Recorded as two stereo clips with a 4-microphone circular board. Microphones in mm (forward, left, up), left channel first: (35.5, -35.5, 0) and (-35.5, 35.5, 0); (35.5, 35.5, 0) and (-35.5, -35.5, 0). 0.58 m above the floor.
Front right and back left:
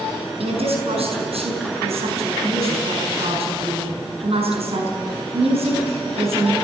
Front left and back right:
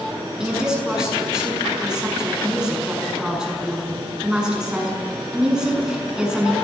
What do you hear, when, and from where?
0.4 s a woman speaking: 140° left, 6.5 m